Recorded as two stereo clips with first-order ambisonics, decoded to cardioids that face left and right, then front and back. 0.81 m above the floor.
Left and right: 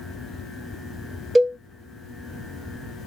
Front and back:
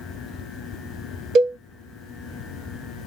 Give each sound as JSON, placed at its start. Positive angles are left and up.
{"t": 1.4, "sound": "a cowbell", "azimuth_deg": -160, "distance_m": 0.5}